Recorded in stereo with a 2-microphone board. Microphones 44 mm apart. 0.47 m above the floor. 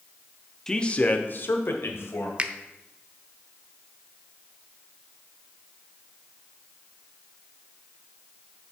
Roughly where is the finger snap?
Right.